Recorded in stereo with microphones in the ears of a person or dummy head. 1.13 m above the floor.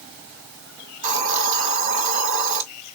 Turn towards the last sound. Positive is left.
turn(degrees=-40)  # may be behind; listen again after turning